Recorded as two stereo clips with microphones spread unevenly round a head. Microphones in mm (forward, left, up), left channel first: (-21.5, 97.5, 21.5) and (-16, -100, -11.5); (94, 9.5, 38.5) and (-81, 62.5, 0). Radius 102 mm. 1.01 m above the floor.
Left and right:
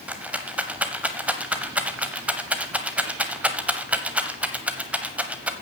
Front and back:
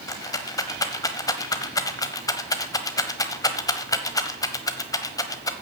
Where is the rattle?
5° left, 0.9 m.